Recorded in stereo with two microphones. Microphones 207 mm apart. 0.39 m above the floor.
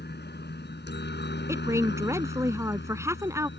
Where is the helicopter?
55° left (ahead or behind); by 3.6 s 60° left (ahead or behind).